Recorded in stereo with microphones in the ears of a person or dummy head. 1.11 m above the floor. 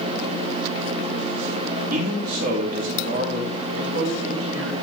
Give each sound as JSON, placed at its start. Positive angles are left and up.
{"t": 1.9, "sound": "a man speaking", "side_deg": -55, "distance_m": 1.6}
{"t": 3.7, "sound": "a man speaking", "side_deg": -80, "distance_m": 4.0}